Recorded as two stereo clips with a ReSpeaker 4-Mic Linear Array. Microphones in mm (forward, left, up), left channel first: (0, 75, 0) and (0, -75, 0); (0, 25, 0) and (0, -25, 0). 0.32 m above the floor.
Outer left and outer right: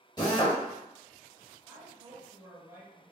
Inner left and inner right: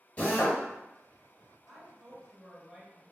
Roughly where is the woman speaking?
Right.